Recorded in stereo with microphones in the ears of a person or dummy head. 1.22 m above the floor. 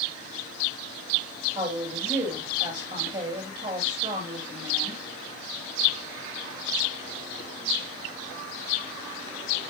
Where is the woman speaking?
20° right (ahead or behind), 2.5 m.